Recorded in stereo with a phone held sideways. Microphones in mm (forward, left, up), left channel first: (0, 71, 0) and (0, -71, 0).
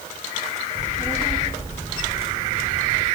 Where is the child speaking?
15° left (ahead or behind), 3.5 m; by 3.0 s 35° left (ahead or behind), 3.5 m.